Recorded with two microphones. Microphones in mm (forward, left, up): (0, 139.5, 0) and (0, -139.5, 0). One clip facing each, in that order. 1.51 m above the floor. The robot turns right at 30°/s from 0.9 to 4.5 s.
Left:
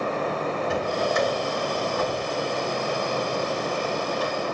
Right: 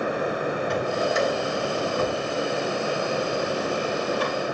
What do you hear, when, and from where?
0.7 s a drawer: 175° left, 3.5 m; by 4.4 s 80° right, 3.5 m